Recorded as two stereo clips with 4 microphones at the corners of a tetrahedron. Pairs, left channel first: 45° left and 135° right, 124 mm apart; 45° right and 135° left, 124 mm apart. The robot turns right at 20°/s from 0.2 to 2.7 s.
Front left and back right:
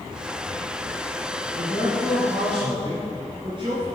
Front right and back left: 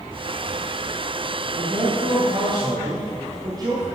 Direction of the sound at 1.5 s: 165° left.